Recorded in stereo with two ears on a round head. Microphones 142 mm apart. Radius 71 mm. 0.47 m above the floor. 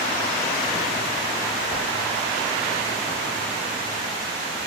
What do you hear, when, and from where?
1.7 s a whoosh: 5° right (ahead or behind), 7.5 m